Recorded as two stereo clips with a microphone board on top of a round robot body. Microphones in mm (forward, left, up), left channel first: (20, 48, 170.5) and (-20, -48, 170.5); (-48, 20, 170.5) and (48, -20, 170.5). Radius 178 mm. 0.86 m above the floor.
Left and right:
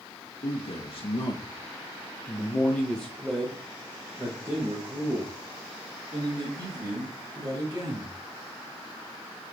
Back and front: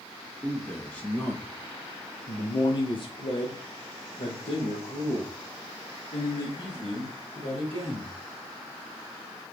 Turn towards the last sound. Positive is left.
turn(degrees=-155)